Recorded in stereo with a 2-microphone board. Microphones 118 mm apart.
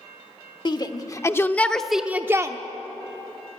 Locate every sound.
0.7 s a shout: 40° left (ahead or behind), 1.1 m; by 2.6 s 30° right (ahead or behind), 0.8 m